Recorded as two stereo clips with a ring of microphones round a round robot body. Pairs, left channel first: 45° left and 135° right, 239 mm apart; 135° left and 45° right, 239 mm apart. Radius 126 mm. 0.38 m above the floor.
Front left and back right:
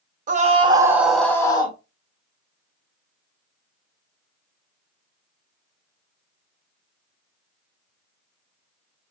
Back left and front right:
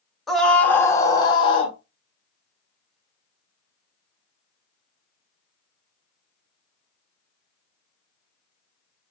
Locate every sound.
0.3 s a scream: 135° right, 0.9 m; by 1.8 s 90° left, 0.9 m